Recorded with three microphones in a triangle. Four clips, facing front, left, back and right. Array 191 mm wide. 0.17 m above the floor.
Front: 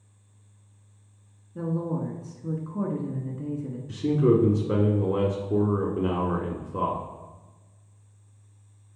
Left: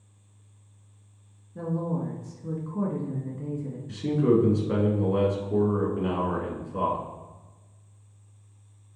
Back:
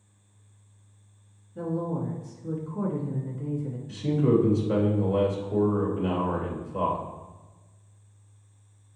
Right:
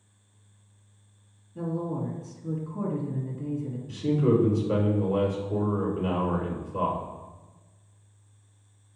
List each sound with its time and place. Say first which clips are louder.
1.6 s a woman speaking: left 1 dB, front 1 dB; 20° left, 1.8 m
3.9 s a man speaking: left 1 dB, front 2 dB; 10° left, 2.0 m